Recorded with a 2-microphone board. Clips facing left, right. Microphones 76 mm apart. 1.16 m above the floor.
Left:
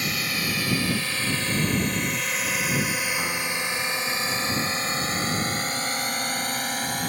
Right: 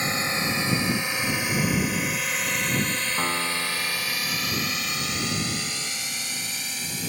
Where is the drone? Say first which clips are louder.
Right 2 dB; 30° right (ahead or behind); by 7.1 s 55° left (ahead or behind).